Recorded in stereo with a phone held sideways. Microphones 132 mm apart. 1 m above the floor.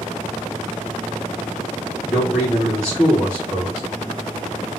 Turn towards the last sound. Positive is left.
turn(degrees=-15)  # may be behind; listen again after turning